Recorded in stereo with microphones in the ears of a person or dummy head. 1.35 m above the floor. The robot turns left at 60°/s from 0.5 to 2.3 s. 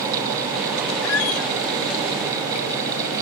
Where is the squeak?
105° left, 1.4 m; by 1.5 s 75° left, 1.4 m.